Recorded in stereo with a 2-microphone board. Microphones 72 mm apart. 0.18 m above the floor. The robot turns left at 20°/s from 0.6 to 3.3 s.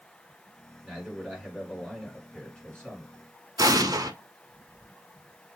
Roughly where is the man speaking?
Behind.